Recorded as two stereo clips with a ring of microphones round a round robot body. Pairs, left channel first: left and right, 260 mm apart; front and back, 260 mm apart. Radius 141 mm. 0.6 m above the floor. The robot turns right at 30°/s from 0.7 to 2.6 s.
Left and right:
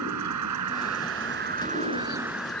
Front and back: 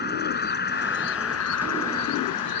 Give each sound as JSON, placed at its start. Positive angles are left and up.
{"t": 0.0, "sound": "an insect", "azimuth_deg": -55}